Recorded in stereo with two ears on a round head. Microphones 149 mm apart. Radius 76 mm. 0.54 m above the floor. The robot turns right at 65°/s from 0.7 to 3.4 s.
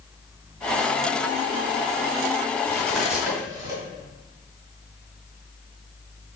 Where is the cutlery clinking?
25° left (ahead or behind), 1.9 m; by 3.8 s 25° right (ahead or behind), 1.9 m.